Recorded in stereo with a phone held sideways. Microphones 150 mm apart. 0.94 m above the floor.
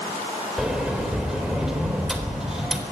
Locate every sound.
0.6 s a sliding door: 5° right (ahead or behind), 3.5 m